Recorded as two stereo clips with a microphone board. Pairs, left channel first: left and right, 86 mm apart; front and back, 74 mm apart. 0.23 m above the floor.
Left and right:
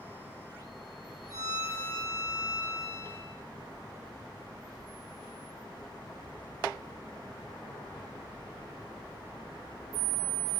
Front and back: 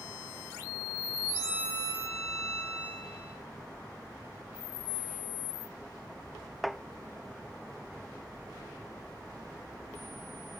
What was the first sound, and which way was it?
A violin, 45° right.